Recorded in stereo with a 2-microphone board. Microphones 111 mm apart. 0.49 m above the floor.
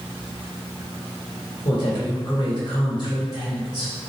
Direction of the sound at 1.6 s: 40° left (ahead or behind).